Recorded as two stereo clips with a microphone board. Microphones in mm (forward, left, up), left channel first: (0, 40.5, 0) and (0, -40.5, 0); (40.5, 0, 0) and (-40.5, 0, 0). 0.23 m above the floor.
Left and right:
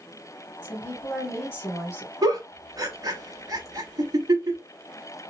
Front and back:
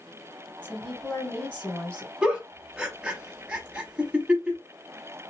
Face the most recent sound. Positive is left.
turn(degrees=-105)